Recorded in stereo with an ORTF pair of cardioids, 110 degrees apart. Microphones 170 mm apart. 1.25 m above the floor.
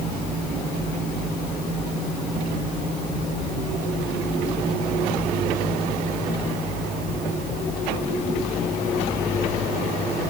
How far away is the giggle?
No giggle in this recording.